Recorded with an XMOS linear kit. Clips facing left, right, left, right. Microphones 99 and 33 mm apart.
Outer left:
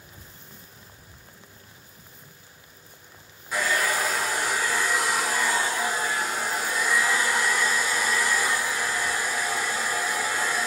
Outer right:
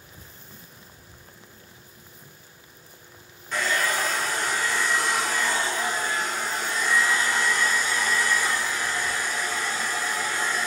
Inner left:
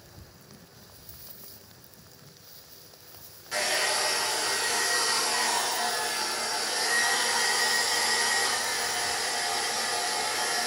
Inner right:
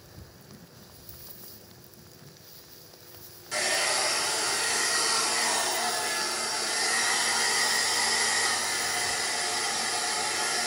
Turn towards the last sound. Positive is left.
turn(degrees=10)  # may be behind; listen again after turning